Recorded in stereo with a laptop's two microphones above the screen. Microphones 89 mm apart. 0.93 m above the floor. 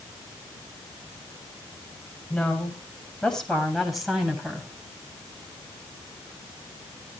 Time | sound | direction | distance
2.3 | a woman speaking | 15° left (ahead or behind) | 6.5 m